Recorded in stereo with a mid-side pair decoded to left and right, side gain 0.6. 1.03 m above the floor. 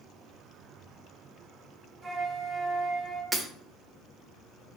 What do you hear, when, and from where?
2.0 s a flute: 25° right, 1.8 m
3.3 s breaking glass: 15° right, 1.4 m